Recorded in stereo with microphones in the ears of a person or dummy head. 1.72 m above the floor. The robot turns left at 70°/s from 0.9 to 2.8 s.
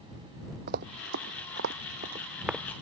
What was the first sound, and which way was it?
Running footsteps, 50° right (ahead or behind).